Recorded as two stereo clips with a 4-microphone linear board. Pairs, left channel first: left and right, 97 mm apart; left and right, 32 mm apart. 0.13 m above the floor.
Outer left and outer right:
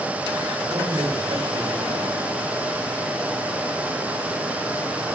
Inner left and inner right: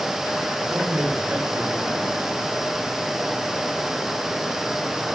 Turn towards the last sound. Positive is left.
turn(degrees=-75)  # may be behind; listen again after turning